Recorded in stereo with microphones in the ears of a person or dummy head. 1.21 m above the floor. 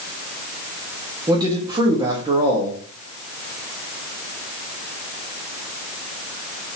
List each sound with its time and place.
1.3 s a man speaking: 20° right (ahead or behind), 1.8 m